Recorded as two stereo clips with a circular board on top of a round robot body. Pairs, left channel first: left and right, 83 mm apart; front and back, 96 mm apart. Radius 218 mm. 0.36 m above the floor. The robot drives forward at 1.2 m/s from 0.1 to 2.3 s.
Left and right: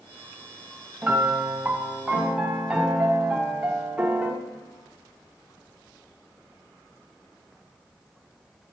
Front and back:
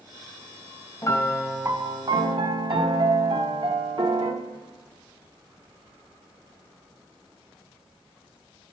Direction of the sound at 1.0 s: 35° right.